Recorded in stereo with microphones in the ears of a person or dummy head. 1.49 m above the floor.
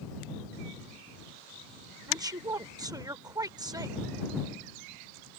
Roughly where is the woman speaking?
Right.